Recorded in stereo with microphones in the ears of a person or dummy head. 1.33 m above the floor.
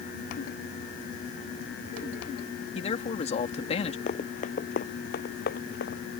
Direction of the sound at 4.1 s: 45° left (ahead or behind).